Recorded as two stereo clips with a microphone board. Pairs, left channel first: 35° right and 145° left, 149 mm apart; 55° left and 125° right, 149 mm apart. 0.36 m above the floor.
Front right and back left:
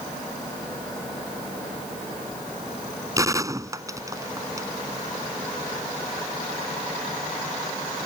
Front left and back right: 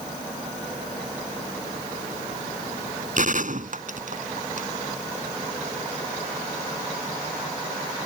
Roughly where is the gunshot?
Behind right.